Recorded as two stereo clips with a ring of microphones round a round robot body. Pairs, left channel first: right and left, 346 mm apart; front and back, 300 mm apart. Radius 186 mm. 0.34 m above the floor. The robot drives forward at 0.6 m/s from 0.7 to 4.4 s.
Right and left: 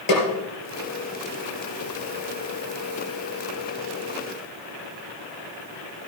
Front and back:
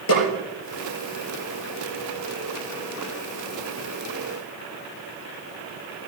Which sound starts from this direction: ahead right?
A snare drum, at 0.1 s.